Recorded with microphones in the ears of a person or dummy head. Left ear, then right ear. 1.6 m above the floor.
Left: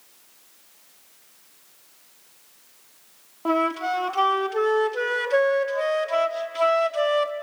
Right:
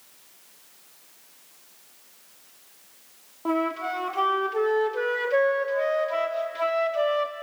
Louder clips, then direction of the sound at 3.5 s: Left 4 dB; 25° left (ahead or behind).